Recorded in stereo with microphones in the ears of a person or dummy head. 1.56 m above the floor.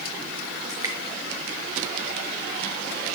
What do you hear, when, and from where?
0.7 s dripping: 20° right (ahead or behind), 5.5 m